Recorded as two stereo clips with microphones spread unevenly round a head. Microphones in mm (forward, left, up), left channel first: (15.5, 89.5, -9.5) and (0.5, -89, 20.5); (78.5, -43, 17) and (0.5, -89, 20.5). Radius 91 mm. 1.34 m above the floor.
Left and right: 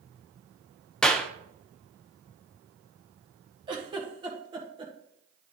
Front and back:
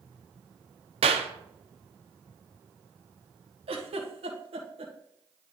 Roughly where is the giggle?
Behind.